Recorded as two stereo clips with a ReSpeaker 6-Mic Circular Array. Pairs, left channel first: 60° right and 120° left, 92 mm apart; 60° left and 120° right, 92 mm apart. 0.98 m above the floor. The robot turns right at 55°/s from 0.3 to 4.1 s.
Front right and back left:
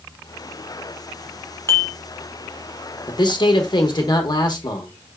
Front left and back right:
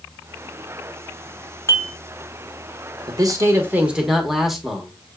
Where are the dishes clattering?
Straight ahead, 1.0 m; by 1.9 s 15° left, 1.0 m.